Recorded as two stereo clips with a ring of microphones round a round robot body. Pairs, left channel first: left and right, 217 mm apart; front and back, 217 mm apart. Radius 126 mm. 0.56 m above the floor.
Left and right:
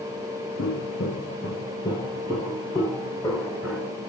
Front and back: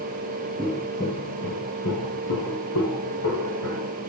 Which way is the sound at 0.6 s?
100° left.